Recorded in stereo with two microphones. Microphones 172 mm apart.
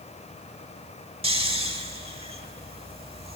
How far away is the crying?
I don't hear crying.